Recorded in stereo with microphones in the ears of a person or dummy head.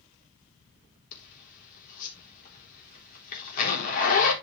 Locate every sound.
1.1 s a zipper: 50° left (ahead or behind), 4 m